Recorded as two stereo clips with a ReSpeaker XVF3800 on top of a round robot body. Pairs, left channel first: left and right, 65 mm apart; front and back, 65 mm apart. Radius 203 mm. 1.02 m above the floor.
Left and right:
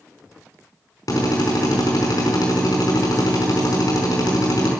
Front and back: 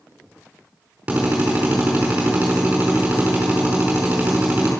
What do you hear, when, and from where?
1.1 s a drill: 110° left, 4.5 m